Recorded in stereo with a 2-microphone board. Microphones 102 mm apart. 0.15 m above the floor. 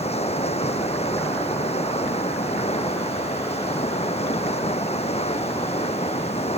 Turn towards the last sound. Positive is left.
turn(degrees=80)